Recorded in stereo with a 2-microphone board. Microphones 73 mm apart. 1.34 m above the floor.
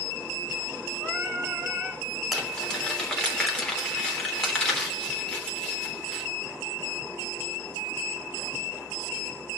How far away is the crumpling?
About 3.5 m.